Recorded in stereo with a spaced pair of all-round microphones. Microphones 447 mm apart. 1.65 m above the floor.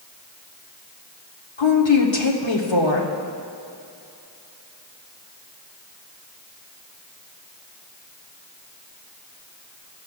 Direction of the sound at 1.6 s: 80° left.